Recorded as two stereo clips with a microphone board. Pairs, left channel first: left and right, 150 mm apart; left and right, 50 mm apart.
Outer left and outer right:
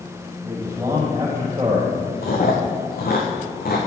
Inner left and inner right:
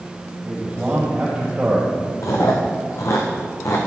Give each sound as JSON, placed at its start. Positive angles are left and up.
{"t": 0.4, "sound": "a man speaking", "side_deg": -20, "distance_m": 5.5}
{"t": 2.2, "sound": "chewing", "side_deg": 85, "distance_m": 3.0}